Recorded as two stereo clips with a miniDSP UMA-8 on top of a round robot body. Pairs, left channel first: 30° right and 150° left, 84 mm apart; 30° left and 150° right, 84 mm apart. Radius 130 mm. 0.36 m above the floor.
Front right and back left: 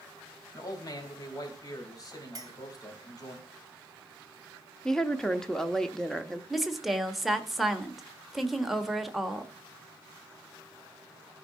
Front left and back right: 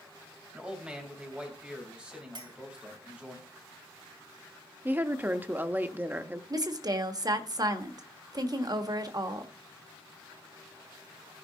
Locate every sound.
0.5 s a man speaking: 75° right, 3 m
2.4 s a clink: 170° right, 2 m
4.8 s a woman speaking: 110° right, 1.0 m
6.5 s a woman speaking: 120° right, 1.4 m